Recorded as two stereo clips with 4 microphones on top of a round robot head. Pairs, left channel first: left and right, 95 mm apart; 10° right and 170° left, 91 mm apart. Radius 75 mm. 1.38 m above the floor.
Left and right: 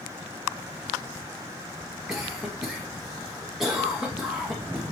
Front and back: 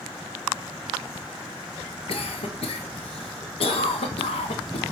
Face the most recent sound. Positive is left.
turn(degrees=-5)